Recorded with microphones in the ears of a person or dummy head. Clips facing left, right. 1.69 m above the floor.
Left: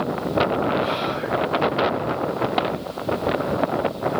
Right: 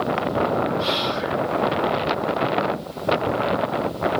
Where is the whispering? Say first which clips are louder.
Even; 55° right (ahead or behind), 0.6 m.